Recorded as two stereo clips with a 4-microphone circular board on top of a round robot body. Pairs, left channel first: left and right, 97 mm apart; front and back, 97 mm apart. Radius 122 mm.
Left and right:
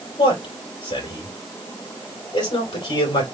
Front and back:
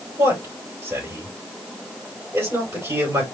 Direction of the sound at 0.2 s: 115° left.